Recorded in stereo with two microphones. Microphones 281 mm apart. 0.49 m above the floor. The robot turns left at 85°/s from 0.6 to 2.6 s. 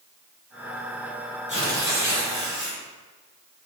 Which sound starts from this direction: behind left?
Tearing paper, at 1.5 s.